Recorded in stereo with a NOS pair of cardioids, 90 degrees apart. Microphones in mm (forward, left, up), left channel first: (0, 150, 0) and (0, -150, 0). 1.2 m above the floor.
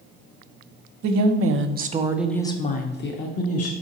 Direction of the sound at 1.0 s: 60° right.